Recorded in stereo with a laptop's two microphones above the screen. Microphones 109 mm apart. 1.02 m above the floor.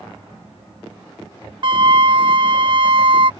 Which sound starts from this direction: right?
A flute, at 1.6 s.